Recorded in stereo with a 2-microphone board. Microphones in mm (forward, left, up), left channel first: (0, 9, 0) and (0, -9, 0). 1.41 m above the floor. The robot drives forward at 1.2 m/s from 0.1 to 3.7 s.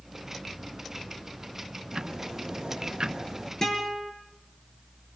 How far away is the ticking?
About 1.4 m.